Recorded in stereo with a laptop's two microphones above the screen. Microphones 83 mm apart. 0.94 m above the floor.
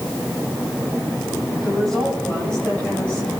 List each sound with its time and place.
1.6 s a woman speaking: 5° left (ahead or behind), 6.5 m; by 3.4 s 15° left (ahead or behind), 5 m